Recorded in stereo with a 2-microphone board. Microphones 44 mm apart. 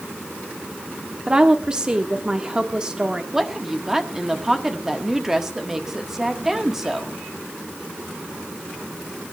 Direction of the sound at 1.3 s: 20° right (ahead or behind).